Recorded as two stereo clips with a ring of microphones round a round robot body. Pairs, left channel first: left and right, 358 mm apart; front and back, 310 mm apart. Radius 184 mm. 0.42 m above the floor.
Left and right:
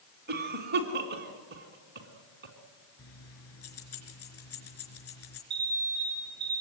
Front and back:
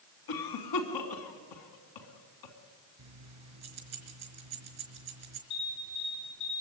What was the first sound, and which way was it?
A cough, 25° right.